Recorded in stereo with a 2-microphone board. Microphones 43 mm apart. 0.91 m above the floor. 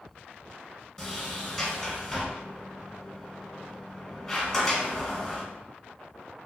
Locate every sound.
1.0 s a sliding door: 10° left (ahead or behind), 1.1 m